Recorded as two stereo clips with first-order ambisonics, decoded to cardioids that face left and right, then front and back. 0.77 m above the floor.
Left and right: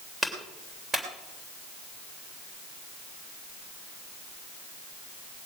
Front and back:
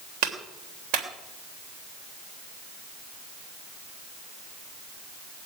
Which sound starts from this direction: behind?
A clap, at 0.2 s.